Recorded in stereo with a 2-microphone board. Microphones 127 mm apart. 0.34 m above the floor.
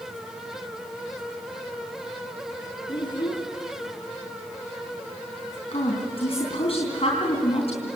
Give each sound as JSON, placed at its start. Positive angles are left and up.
{"t": 2.9, "sound": "a child speaking", "side_deg": 45, "distance_m": 3.5}
{"t": 5.7, "sound": "a woman speaking", "side_deg": 55, "distance_m": 3.5}